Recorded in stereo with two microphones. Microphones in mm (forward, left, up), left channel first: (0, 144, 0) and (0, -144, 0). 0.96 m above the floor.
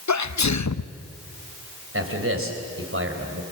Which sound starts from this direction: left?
A sneeze, at 0.1 s.